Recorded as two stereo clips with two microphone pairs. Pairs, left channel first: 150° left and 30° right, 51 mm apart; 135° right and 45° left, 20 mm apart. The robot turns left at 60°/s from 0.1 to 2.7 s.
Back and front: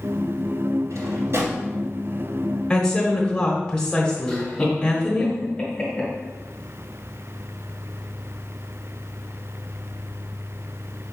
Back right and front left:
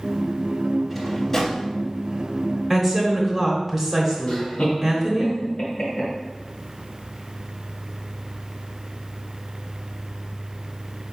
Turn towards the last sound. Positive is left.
turn(degrees=-145)